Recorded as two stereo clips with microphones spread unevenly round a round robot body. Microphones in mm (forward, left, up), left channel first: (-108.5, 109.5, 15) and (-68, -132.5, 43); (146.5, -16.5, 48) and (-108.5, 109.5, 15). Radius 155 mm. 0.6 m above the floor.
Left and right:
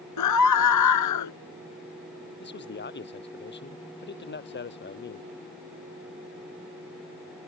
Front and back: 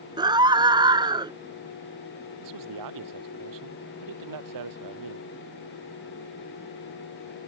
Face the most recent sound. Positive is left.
turn(degrees=145)